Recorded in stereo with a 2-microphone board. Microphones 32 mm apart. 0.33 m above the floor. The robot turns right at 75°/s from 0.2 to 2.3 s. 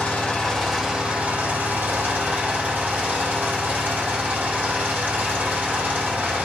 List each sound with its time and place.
0.0 s an engine running: 145° left, 6 m; by 6.5 s 60° right, 6 m